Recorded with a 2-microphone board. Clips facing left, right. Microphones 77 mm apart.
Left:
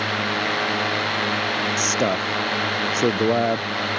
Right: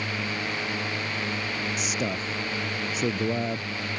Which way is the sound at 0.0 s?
85° left.